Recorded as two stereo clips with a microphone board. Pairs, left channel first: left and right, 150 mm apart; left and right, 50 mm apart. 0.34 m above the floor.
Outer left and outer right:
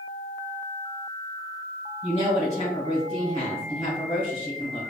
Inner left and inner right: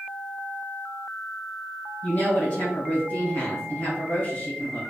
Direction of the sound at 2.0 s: 45° left (ahead or behind).